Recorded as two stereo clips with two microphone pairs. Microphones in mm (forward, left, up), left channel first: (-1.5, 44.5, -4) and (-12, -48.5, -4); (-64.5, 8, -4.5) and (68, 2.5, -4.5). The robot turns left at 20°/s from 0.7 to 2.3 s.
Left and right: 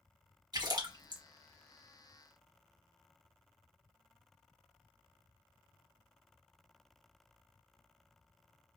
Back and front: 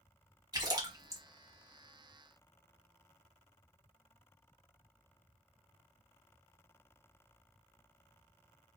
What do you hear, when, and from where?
0.5 s a splash: 60° right, 1.0 m; by 1.2 s 70° right, 1.0 m